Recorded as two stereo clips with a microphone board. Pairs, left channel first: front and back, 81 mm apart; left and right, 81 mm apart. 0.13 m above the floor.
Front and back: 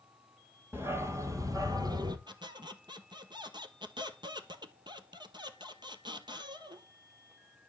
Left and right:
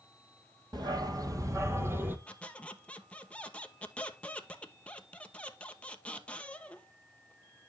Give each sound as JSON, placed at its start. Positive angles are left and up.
{"t": 0.7, "sound": "a dog barking", "azimuth_deg": -120, "distance_m": 1.6}
{"t": 2.3, "sound": "a squeak", "azimuth_deg": 165, "distance_m": 1.1}